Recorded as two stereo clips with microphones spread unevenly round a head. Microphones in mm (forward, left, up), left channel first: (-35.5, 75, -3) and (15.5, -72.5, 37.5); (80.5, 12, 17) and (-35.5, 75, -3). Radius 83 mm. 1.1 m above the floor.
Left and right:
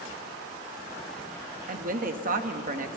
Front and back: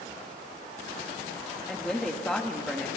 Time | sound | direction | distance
1.7 | a woman speaking | 115° right | 1.9 m